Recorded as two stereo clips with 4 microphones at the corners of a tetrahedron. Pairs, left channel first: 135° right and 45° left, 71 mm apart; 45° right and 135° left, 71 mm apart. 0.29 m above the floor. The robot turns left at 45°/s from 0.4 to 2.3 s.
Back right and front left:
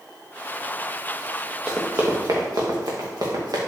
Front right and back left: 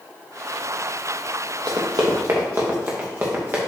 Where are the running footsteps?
125° left, 2.5 m; by 3.6 s 70° left, 3 m.